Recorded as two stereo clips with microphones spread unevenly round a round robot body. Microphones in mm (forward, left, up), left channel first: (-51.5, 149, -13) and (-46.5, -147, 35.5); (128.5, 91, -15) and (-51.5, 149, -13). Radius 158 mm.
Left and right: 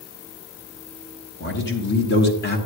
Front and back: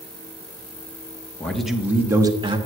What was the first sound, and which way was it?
A man speaking, 65° left.